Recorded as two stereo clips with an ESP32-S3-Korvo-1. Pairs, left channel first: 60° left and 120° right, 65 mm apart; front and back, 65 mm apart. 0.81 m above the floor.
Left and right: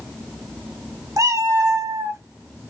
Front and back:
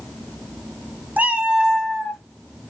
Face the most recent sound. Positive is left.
turn(degrees=-85)